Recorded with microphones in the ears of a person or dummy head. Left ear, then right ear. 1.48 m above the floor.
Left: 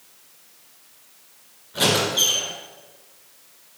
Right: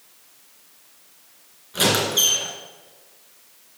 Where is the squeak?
20° right (ahead or behind), 2 m.